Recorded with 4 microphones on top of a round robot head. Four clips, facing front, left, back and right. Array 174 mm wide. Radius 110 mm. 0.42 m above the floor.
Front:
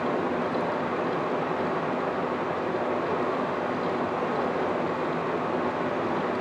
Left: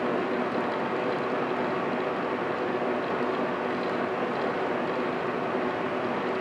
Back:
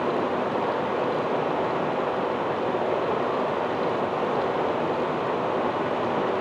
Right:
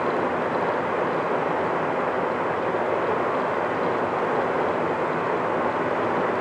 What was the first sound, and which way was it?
Running water, 120° right.